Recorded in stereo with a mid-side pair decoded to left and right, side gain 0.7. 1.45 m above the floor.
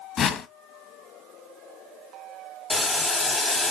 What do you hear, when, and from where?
0.2 s a whoosh: 35° left, 0.6 m
2.7 s boiling: 5° left, 0.8 m